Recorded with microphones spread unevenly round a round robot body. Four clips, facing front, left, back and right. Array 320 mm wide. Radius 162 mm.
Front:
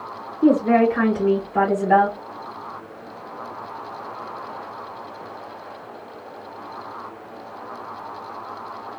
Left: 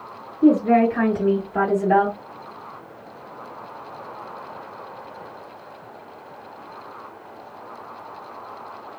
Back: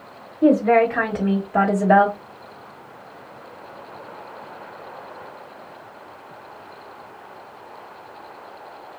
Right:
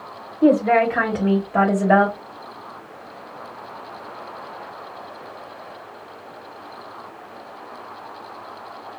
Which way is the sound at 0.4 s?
120° right.